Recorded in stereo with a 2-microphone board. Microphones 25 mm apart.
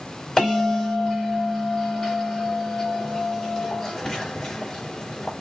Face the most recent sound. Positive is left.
turn(degrees=10)  # may be behind; listen again after turning